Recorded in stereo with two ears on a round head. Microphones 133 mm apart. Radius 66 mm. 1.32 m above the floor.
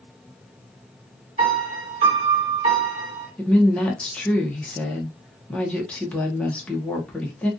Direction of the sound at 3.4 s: 5° left (ahead or behind).